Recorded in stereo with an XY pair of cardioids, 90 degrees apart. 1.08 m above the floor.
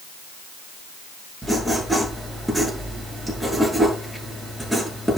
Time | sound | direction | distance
1.4 | writing | 5° right | 8 m